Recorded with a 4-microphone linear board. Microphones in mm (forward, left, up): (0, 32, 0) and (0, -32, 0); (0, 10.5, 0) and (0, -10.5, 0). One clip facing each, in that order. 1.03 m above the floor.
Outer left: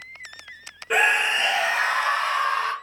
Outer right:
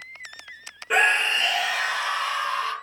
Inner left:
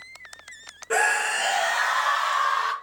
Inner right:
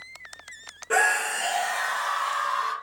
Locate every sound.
0.9 s a scream: centre (ahead or behind), 0.6 m; by 2.7 s 50° left (ahead or behind), 1.2 m